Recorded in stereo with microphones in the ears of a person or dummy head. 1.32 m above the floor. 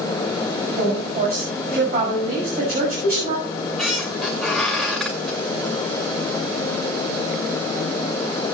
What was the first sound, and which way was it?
A woman speaking, 45° right (ahead or behind).